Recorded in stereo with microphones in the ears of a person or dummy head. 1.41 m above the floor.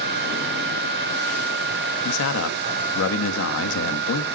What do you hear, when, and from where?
2.0 s a man speaking: 75° left (ahead or behind), 1.8 m